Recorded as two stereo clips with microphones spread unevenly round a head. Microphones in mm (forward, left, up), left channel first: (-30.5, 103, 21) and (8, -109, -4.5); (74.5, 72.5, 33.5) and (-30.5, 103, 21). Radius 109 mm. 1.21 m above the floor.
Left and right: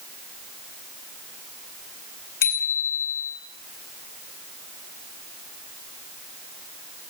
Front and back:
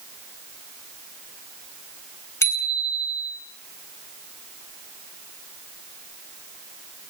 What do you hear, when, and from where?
2.4 s a bicycle bell: 50° left, 10 m